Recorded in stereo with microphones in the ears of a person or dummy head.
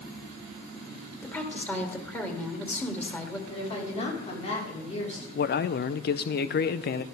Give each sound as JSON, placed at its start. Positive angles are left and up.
{"t": 1.2, "sound": "a woman speaking", "side_deg": 10, "distance_m": 2.5}
{"t": 3.5, "sound": "a woman speaking", "side_deg": 40, "distance_m": 4.0}
{"t": 5.3, "sound": "a man speaking", "side_deg": 50, "distance_m": 0.5}